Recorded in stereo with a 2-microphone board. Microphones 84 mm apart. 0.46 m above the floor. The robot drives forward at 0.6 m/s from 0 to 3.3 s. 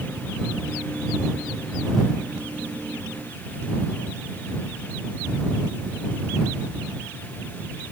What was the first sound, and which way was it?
Only background noise.